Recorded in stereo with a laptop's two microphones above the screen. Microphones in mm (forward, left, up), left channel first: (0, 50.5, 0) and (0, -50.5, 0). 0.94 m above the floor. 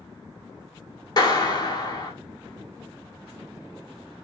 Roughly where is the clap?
Left.